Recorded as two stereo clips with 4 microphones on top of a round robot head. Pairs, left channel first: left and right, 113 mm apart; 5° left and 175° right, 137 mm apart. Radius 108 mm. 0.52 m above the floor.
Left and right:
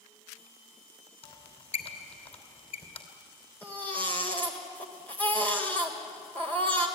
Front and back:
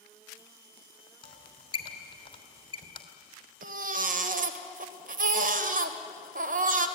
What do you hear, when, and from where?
1.2 s a squeak: 55° left, 3 m
3.6 s a baby crying: 165° left, 1.6 m